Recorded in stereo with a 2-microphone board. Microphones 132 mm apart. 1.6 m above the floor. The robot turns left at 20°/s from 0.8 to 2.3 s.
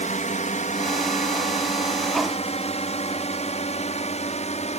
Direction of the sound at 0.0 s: 70° left (ahead or behind).